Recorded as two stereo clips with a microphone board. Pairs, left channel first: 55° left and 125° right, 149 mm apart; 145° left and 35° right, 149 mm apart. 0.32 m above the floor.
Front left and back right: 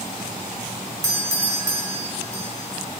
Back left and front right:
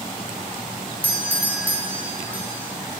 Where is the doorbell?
90° right, 1.6 m.